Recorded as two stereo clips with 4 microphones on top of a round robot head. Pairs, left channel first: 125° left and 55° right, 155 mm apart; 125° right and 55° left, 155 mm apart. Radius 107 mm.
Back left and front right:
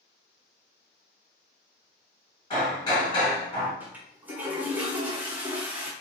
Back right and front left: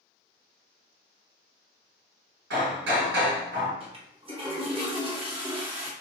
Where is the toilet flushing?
20° left, 1.5 m.